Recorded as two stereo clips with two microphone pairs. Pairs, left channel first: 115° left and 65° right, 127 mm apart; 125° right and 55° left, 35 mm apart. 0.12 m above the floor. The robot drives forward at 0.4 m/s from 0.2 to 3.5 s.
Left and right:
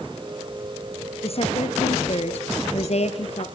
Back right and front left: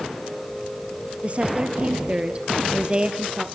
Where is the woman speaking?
95° left, 2.5 m; by 3.5 s 120° left, 2.5 m.